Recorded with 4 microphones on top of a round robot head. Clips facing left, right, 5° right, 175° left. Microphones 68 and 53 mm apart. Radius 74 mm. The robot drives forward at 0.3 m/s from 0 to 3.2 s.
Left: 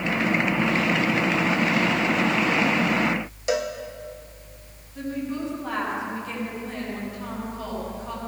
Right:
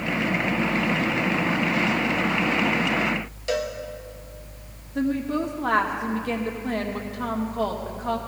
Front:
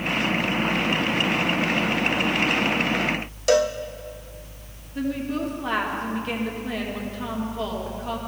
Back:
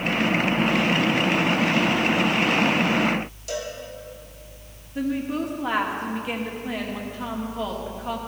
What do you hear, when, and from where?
3.5 s a cowbell: 15° left, 0.7 m
5.0 s a woman speaking: 110° right, 2 m